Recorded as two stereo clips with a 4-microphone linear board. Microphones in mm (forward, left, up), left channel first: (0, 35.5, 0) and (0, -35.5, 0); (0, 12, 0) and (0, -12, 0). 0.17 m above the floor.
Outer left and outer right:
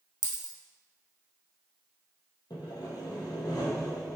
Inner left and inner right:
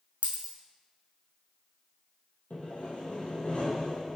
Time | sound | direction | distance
0.2 | a dropped coin | 90° right | 1.3 m
2.5 | sawing | 75° left (ahead or behind) | 2.5 m